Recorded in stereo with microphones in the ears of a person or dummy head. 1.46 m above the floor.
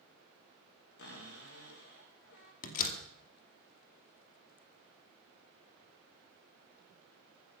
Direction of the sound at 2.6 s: 45° left (ahead or behind).